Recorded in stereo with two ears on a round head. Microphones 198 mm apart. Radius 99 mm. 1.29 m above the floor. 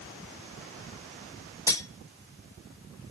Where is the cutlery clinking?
15° left (ahead or behind), 0.8 m.